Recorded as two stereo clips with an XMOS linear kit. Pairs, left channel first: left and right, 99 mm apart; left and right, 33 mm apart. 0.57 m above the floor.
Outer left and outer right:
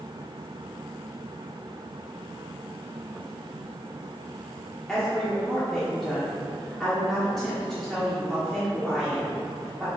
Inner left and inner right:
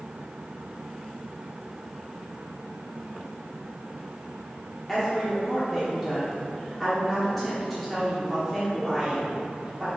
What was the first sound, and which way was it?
A woman speaking, 5° left (ahead or behind).